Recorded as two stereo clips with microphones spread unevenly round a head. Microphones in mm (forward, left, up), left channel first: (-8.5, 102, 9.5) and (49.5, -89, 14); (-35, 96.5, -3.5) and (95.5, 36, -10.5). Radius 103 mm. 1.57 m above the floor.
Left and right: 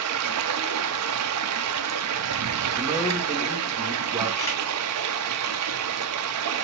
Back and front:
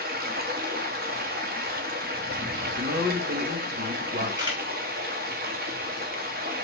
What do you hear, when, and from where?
0.0 s running water: 70° right, 0.8 m
2.8 s a man speaking: 5° left, 2 m
4.4 s a camera shutter: 30° left, 3.5 m